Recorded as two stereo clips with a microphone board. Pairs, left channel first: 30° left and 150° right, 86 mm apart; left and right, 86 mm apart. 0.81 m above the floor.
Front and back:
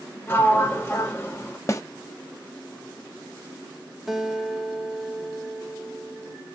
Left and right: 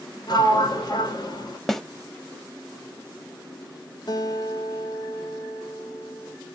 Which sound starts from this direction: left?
A sliding door, at 0.3 s.